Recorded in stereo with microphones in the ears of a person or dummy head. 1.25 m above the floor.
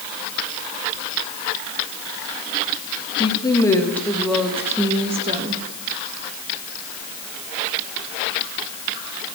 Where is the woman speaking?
25° left (ahead or behind), 1.9 m; by 5.6 s 40° right (ahead or behind), 1.7 m.